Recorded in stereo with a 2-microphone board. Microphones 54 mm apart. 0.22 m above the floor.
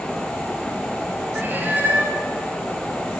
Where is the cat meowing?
35° right (ahead or behind), 6.5 m.